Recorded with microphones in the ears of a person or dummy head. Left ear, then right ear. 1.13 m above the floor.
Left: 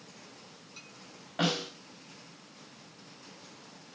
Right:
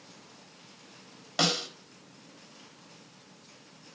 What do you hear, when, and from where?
1.4 s a snare drum: 80° right, 3 m